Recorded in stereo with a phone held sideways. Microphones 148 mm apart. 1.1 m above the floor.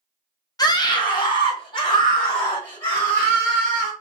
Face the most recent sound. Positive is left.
turn(degrees=35)  # may be behind; listen again after turning